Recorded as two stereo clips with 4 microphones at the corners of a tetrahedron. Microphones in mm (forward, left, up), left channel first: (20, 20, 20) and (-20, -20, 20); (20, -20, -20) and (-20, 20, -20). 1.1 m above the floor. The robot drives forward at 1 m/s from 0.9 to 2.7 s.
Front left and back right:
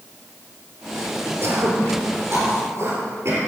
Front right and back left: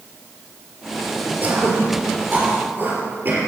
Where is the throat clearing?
175° right, 2.5 m.